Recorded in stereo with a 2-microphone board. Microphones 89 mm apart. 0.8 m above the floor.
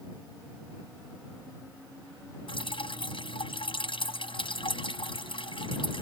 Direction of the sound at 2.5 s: 80° left.